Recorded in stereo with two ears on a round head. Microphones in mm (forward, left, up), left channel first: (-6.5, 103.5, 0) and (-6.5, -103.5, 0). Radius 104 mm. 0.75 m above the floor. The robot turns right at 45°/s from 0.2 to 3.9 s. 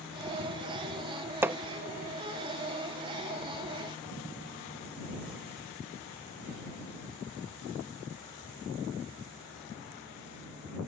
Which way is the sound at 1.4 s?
10° right (ahead or behind).